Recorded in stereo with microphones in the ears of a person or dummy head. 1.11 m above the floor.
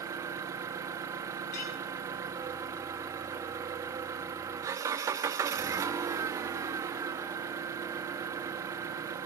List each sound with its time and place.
0.0 s an engine running: 20° right (ahead or behind), 0.7 m
1.5 s a clink: 55° left (ahead or behind), 5.5 m